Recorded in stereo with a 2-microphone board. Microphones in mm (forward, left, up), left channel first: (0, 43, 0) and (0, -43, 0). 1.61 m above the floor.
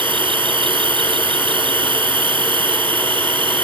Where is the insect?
65° right (ahead or behind).